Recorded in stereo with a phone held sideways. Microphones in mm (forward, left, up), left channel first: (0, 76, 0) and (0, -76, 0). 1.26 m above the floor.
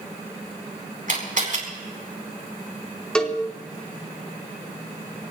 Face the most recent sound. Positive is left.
turn(degrees=5)  # may be behind; listen again after turning